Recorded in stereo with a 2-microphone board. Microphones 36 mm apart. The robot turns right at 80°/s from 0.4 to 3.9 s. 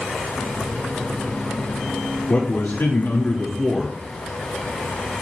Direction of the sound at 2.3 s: 65° left.